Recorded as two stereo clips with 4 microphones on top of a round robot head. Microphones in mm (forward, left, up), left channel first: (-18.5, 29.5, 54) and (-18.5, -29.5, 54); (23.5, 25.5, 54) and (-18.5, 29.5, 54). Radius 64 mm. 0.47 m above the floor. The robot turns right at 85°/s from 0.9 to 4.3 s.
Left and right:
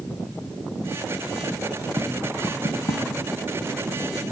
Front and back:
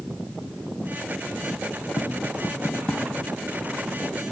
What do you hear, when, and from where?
2.0 s tapping: 20° right, 2 m; by 4.3 s straight behind, 2 m